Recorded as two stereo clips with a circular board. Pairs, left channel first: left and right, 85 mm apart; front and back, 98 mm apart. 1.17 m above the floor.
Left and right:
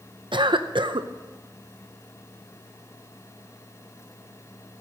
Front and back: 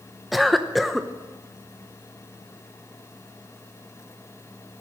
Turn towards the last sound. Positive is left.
turn(degrees=-90)